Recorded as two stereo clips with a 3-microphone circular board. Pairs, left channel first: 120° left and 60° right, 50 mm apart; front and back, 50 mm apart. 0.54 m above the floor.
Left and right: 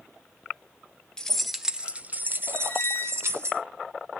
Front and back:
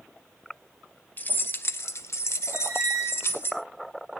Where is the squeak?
175° left, 2.5 m.